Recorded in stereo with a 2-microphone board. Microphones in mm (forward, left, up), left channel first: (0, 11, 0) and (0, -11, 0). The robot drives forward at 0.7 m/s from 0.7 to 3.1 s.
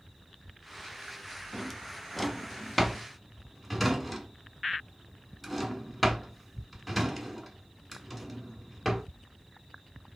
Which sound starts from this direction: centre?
A drawer, at 1.5 s.